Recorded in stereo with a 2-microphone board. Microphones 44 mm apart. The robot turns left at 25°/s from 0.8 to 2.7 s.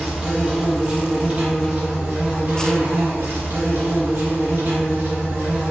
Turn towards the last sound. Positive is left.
turn(degrees=-60)